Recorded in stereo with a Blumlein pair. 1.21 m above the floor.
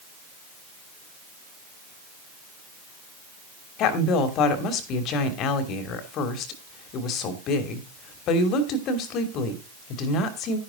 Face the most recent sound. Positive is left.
turn(degrees=35)